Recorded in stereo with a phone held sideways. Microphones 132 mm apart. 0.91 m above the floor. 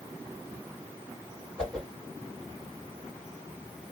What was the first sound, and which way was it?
A whoosh, 5° left (ahead or behind).